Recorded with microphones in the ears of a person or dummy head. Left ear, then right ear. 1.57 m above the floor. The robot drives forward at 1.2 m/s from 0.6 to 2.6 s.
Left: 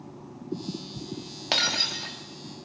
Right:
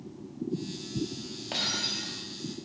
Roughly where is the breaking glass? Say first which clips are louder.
Left 6 dB; left.